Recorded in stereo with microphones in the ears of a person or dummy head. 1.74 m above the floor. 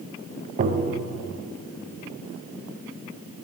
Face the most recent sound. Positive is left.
turn(degrees=-45)  # may be behind; listen again after turning